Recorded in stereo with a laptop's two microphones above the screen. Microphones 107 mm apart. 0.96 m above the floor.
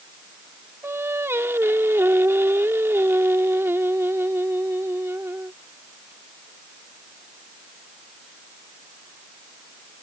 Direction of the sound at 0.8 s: 25° right (ahead or behind).